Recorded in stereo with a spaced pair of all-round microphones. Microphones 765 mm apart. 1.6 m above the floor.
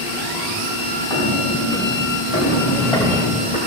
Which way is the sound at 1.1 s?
30° left (ahead or behind).